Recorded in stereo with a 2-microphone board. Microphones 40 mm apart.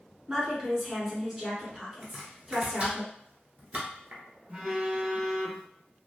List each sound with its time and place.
0.3 s a woman speaking: 15° right (ahead or behind), 1.4 m
2.0 s chopping: 35° right (ahead or behind), 1.0 m
4.5 s a phone buzzing: 35° right (ahead or behind), 1.9 m